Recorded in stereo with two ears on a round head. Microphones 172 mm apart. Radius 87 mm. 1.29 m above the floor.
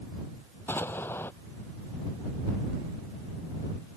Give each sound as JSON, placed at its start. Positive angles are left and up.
{"t": 0.7, "sound": "an explosion", "side_deg": 10}